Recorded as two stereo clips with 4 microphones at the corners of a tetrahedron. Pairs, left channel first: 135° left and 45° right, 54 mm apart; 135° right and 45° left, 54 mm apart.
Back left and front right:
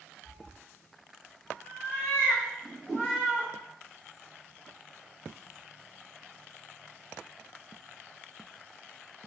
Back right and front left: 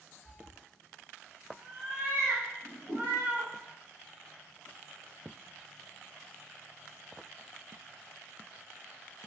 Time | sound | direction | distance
0.2 | a cat meowing | 90° left | 1.5 m
2.6 | a whoosh | 40° left | 1.4 m